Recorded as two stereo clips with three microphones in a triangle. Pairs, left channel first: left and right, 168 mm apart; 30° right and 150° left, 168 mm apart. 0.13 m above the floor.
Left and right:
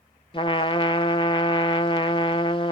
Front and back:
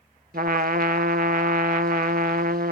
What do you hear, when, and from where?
0.3 s a trumpet: 145° left, 0.5 m